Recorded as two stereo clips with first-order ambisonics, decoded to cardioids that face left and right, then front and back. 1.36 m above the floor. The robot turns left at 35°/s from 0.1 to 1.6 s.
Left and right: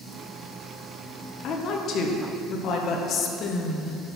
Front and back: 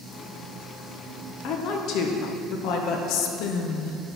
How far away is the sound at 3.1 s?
About 0.9 m.